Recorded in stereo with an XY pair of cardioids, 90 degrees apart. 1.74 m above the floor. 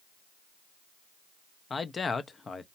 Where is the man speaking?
40° left, 0.8 m.